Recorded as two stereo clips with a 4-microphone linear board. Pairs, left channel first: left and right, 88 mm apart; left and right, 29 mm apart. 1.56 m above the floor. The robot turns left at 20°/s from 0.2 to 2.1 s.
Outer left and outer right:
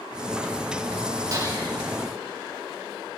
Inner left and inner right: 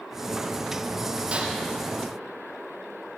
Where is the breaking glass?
45° right (ahead or behind), 6 m; by 1.6 s 40° right (ahead or behind), 6 m.